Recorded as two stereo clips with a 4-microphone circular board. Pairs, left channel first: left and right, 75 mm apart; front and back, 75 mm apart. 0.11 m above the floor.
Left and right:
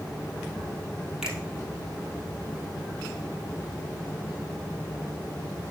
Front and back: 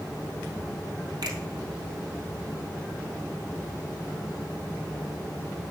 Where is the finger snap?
175° right, 2.5 m.